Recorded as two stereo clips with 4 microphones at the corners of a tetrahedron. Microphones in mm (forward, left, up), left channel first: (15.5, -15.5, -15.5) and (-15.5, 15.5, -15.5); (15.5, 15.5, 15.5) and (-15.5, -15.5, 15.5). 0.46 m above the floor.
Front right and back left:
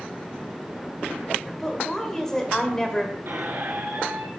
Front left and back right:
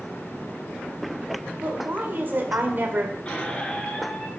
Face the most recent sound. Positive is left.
turn(degrees=110)